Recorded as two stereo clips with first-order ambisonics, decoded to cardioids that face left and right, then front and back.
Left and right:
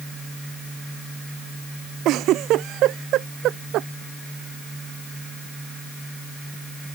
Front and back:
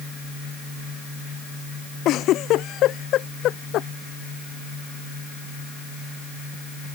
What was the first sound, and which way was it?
A giggle, 45° right.